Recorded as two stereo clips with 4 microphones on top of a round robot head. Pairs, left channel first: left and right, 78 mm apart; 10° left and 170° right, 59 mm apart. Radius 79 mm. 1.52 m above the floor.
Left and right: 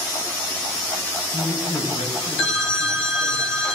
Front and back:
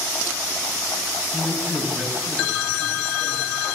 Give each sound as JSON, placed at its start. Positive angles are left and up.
{"t": 1.3, "sound": "a man speaking", "azimuth_deg": 80, "distance_m": 9.0}